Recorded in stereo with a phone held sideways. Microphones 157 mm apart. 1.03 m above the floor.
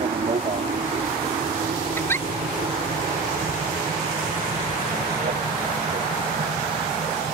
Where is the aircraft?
45° right (ahead or behind); by 7.3 s 55° right (ahead or behind).